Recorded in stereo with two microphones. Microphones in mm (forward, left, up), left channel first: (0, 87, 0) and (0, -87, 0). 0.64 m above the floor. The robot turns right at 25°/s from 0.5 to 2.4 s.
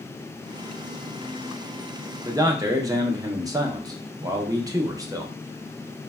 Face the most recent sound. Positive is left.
turn(degrees=-20)  # may be behind; listen again after turning